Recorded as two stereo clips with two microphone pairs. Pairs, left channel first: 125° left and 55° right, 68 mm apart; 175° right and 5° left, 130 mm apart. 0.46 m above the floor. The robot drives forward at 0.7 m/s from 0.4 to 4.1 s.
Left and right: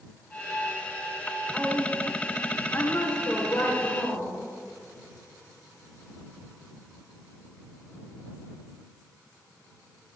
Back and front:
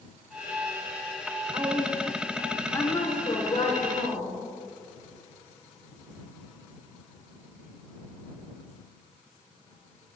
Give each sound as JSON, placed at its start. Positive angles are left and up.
{"t": 1.5, "sound": "a woman speaking", "azimuth_deg": 30, "distance_m": 1.0}